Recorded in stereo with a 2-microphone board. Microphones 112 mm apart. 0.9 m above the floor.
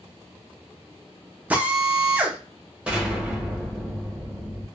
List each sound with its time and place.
1.5 s a drill: 15° right (ahead or behind), 0.6 m
2.9 s an explosion: 10° right (ahead or behind), 1.0 m